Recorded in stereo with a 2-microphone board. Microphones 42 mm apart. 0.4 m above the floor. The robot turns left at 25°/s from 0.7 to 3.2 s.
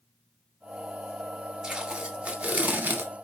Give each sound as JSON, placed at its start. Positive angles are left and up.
{"t": 1.6, "sound": "tape being pulled", "azimuth_deg": -15, "distance_m": 0.8}